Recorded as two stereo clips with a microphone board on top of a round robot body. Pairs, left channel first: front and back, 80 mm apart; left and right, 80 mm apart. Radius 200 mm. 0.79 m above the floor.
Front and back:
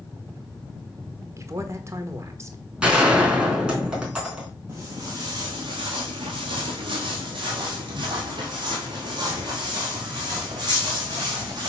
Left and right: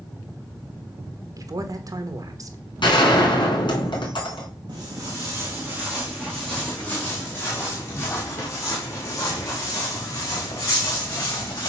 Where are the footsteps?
120° right, 1.0 m; by 11.7 s 140° left, 3.5 m.